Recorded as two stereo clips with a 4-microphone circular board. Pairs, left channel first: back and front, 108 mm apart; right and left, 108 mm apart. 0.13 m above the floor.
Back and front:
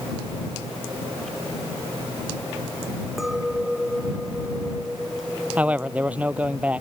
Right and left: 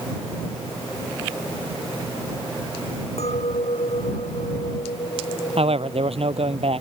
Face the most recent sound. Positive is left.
turn(degrees=75)